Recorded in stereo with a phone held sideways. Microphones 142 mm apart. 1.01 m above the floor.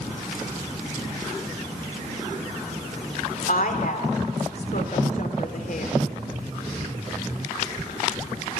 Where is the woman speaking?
70° left (ahead or behind), 2.5 m.